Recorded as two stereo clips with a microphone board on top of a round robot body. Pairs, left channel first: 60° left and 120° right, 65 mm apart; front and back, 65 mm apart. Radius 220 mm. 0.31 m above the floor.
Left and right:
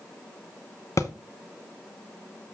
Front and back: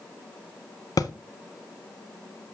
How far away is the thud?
About 0.6 m.